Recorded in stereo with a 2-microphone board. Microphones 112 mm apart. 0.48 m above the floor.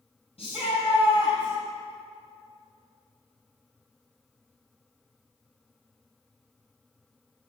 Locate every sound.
0.4 s a shout: 65° left (ahead or behind), 3.5 m